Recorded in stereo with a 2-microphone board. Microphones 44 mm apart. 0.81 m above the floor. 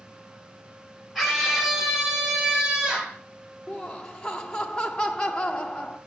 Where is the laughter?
15° left (ahead or behind), 0.7 m.